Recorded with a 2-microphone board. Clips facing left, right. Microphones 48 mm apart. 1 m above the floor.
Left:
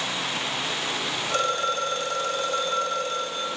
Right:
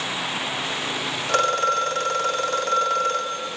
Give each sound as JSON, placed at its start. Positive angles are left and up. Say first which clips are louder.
{"t": 1.3, "sound": "a phone ringing", "louder": "right 5 dB", "side_deg": -75, "distance_m": 1.0}